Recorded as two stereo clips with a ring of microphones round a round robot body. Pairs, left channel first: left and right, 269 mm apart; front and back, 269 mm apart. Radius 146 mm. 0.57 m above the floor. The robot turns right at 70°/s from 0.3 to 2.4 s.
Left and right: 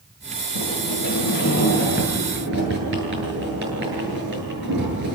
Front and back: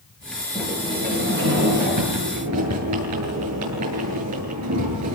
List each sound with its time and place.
0.6 s a sliding door: 85° left, 9 m; by 5.2 s 145° right, 9 m